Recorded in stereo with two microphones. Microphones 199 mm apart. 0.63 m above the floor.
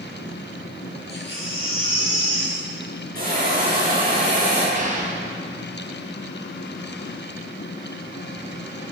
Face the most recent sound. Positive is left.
turn(degrees=-40)  # may be behind; listen again after turning